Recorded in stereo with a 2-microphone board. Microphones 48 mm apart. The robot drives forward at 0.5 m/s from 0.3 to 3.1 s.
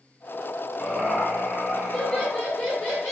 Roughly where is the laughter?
Left.